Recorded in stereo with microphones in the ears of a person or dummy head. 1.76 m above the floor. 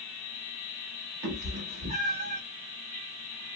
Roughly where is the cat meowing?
Right.